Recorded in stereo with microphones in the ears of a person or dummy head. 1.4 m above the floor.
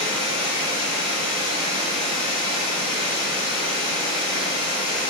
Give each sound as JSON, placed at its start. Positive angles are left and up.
{"t": 0.0, "sound": "running water", "side_deg": -30, "distance_m": 4.5}